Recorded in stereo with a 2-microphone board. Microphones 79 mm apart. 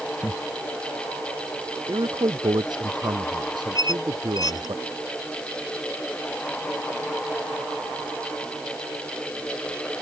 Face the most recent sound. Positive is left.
turn(degrees=50)  # may be behind; listen again after turning